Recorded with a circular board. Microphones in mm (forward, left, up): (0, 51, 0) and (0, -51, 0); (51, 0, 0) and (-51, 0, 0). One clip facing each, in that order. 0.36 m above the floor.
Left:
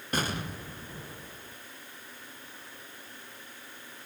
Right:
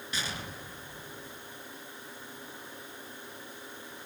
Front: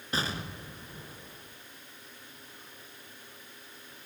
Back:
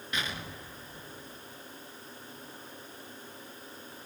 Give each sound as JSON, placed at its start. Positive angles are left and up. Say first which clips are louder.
{"t": 0.1, "sound": "an explosion", "louder": "left 7 dB, front 3 dB", "azimuth_deg": 55, "distance_m": 2.5}